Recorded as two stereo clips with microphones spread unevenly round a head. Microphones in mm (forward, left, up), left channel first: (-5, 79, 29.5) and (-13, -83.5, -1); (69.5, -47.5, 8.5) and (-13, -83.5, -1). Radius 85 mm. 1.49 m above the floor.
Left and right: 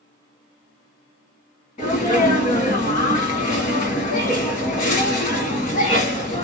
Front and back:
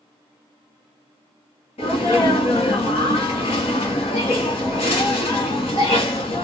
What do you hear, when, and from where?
1.8 s a sneeze: 35° left, 1.4 m